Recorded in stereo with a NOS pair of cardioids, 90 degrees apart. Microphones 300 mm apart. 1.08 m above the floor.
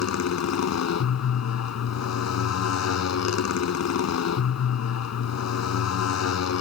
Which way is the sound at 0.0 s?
55° left.